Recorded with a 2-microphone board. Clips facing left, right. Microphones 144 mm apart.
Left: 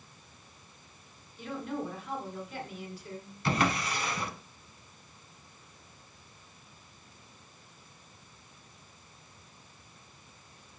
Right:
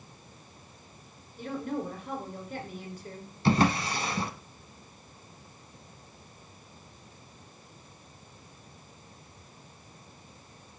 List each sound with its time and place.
1.4 s a woman speaking: 45° right (ahead or behind), 2.5 m
3.5 s a drawer: 30° right (ahead or behind), 0.7 m